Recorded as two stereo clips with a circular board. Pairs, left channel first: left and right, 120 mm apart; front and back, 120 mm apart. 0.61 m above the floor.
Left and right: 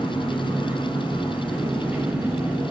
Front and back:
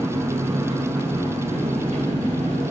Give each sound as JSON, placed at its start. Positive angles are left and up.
{"t": 0.0, "sound": "an engine running", "azimuth_deg": -165, "distance_m": 1.7}